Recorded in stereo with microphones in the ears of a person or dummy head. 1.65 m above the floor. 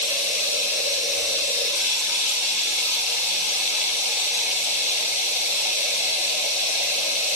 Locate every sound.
0.0 s running water: 40° left (ahead or behind), 5.5 m